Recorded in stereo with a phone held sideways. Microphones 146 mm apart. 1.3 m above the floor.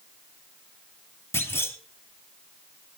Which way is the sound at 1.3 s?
15° left (ahead or behind).